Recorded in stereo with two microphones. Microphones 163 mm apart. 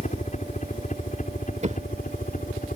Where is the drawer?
50° right (ahead or behind).